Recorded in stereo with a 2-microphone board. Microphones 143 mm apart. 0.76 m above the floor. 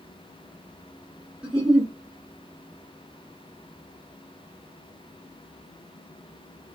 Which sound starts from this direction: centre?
A giggle, at 1.4 s.